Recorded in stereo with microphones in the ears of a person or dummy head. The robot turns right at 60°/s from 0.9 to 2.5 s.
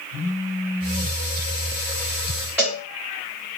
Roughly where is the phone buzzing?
Centre.